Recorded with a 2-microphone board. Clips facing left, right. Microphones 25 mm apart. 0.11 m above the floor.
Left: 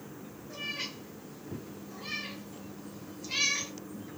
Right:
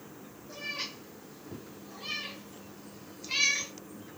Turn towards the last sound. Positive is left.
turn(degrees=-5)  # may be behind; listen again after turning